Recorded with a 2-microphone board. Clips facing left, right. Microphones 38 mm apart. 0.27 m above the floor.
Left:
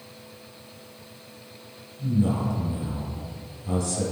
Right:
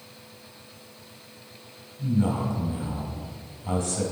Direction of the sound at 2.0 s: 35° right (ahead or behind).